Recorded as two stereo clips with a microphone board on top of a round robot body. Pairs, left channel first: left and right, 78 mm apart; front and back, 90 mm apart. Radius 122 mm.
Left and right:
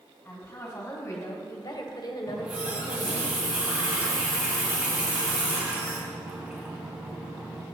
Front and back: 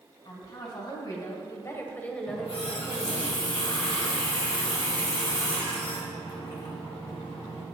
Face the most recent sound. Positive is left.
turn(degrees=-20)